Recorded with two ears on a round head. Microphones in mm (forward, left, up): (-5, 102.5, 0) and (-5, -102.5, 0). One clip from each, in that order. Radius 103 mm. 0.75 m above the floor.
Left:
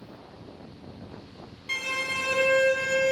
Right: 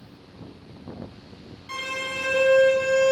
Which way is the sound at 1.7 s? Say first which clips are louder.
Left 1 dB; 20° left (ahead or behind).